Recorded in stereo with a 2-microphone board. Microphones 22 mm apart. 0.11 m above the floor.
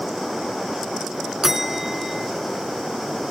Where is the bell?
15° right (ahead or behind), 0.7 m.